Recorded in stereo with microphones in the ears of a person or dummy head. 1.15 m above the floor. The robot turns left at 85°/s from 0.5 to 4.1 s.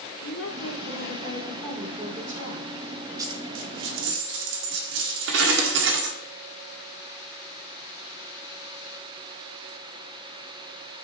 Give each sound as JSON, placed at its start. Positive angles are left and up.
{"t": 0.2, "sound": "a woman speaking", "azimuth_deg": 105, "distance_m": 4.0}
{"t": 3.2, "sound": "a dropped coin", "azimuth_deg": -20, "distance_m": 1.4}